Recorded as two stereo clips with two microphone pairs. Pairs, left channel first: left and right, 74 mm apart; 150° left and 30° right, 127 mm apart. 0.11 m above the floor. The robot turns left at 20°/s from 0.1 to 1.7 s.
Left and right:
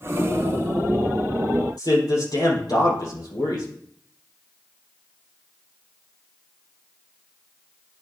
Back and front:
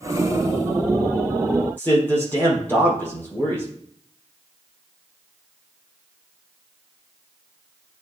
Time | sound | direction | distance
1.8 | a man speaking | 75° left | 4 m